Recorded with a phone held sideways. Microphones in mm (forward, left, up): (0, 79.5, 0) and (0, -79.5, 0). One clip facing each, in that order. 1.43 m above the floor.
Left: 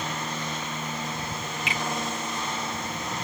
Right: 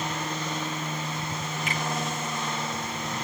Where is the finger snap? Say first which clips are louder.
Even; 50° right (ahead or behind), 3.5 m.